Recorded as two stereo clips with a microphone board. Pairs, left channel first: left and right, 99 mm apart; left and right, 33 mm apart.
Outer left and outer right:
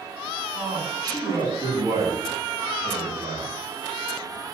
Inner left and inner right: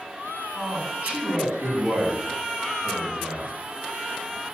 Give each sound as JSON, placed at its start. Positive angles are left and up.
{"t": 0.5, "sound": "a man speaking", "side_deg": -40, "distance_m": 7.0}